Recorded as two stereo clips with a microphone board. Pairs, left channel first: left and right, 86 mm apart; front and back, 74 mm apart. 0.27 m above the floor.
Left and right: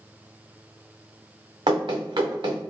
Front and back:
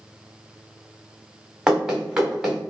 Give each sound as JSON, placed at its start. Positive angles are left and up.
{"t": 1.7, "sound": "running footsteps", "azimuth_deg": -100, "distance_m": 1.2}